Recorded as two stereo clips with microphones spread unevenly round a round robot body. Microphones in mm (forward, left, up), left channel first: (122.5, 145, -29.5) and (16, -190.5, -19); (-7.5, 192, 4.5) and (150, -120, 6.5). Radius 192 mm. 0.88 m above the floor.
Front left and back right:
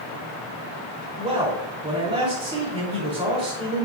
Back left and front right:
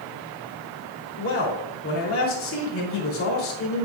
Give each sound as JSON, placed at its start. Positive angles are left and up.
{"t": 1.2, "sound": "a man speaking", "azimuth_deg": 175, "distance_m": 3.0}